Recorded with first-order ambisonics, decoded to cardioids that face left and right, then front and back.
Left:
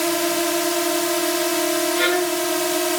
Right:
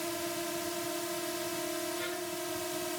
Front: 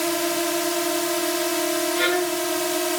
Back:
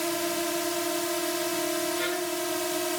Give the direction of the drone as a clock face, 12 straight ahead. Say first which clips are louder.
Left 15 dB, front 5 dB; 10 o'clock.